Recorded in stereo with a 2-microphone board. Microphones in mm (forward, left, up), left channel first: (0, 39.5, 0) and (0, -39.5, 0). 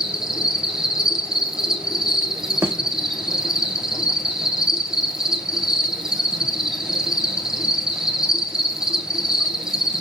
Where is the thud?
35° right (ahead or behind), 0.8 m.